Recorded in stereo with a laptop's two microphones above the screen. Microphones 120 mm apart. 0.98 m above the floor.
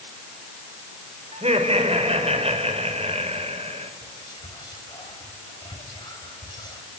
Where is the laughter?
60° right (ahead or behind), 5 m.